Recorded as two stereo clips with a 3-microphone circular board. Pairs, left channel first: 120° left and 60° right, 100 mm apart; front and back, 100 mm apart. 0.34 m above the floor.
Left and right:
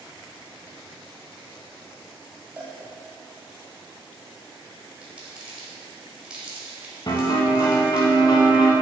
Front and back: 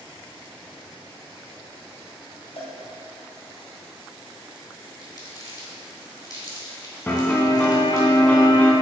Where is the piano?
75° left, 0.6 m.